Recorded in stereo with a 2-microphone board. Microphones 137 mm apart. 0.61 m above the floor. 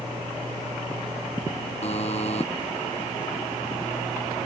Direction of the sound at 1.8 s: 50° left (ahead or behind).